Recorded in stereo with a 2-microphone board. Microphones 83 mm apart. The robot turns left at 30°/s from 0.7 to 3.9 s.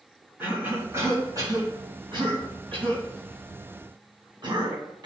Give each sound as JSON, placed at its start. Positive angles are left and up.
{"t": 0.4, "sound": "a cough", "side_deg": -25, "distance_m": 3.5}